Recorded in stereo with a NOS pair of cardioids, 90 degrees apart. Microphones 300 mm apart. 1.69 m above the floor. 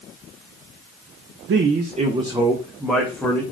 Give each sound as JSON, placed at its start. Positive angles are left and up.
{"t": 1.5, "sound": "a man speaking", "azimuth_deg": -45, "distance_m": 0.6}